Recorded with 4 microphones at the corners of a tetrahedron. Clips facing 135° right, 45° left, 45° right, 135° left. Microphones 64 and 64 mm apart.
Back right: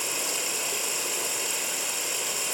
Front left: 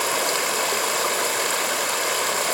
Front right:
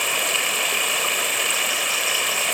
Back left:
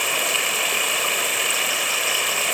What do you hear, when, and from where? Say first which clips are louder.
0.0 s running water: front left 10 dB, even; 45° left, 2 m